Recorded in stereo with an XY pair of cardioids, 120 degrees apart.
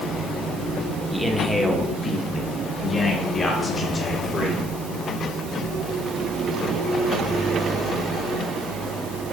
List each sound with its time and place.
1.1 s a man speaking: 5° left, 1.4 m; by 4.7 s 40° left, 3 m